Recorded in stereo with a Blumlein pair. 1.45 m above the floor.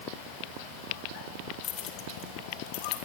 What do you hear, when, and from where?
1.6 s keys jangling: 30° left, 3.5 m; by 3.0 s 50° left, 4 m